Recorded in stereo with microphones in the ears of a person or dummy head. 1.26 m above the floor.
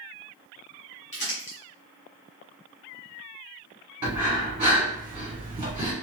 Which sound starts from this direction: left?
Crumpling, at 1.1 s.